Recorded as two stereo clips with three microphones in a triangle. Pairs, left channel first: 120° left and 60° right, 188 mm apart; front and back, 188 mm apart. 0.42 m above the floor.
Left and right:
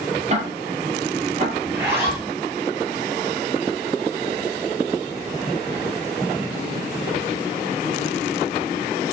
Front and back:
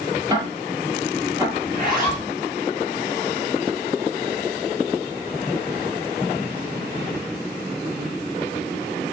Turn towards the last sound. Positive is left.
turn(degrees=-140)